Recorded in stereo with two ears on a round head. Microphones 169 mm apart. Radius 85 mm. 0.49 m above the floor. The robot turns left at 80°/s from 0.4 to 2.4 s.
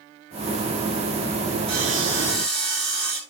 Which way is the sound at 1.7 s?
60° right.